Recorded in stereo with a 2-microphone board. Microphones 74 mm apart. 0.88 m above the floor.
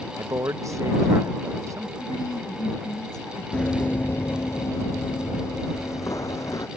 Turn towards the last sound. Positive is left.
turn(degrees=50)  # may be behind; listen again after turning